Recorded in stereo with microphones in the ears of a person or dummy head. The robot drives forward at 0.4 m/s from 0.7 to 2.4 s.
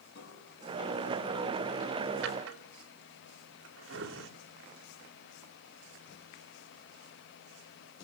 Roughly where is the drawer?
Right.